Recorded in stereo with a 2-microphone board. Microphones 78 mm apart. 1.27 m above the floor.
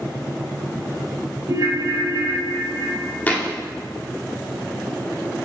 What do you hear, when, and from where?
1.5 s a ringtone: 50° right (ahead or behind), 1.0 m
3.3 s a thud: 20° left (ahead or behind), 0.9 m